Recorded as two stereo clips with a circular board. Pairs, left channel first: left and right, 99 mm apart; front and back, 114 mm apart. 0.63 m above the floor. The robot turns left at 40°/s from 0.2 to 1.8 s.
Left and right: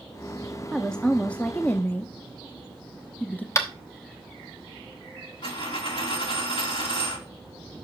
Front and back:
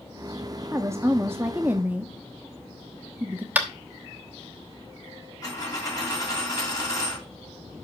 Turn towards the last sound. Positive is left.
turn(degrees=60)